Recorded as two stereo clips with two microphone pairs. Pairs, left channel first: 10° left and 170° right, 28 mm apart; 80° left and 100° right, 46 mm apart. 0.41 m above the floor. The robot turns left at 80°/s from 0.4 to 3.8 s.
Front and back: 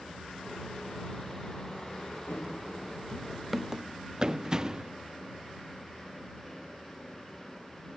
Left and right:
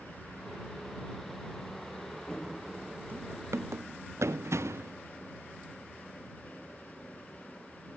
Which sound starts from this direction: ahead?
Running footsteps, at 2.3 s.